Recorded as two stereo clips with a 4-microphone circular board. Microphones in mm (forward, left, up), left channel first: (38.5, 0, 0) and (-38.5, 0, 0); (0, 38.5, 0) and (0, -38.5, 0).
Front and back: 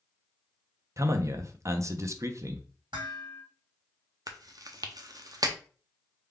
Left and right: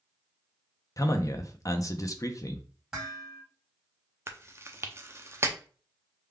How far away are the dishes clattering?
About 1.6 m.